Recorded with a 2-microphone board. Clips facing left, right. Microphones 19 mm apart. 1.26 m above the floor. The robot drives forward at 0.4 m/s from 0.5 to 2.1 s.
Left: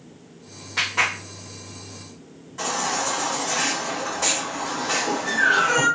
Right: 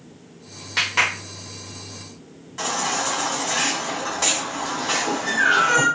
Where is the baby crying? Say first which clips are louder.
Right 1 dB; 40° right (ahead or behind), 1.8 m.